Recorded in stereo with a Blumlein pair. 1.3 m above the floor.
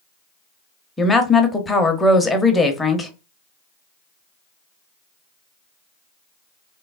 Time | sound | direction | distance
1.0 | a woman speaking | 10° left | 0.6 m